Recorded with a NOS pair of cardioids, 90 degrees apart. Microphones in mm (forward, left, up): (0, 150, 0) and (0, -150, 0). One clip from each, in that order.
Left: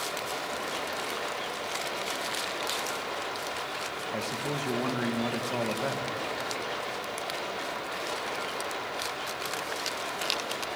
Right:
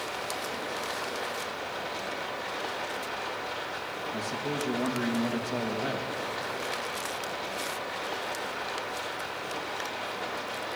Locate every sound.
0.0 s running water: 20° left, 4 m
4.1 s a man speaking: 15° left, 1.6 m